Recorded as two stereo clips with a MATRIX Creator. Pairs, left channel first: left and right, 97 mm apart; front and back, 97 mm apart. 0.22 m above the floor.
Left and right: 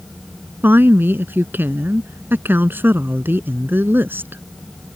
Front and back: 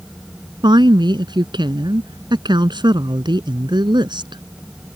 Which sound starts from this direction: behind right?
A woman speaking, at 0.6 s.